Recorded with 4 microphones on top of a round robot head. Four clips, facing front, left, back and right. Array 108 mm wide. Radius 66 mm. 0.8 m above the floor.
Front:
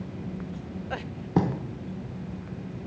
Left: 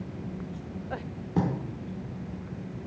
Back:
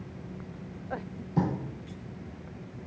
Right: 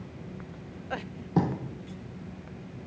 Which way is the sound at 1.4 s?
20° right.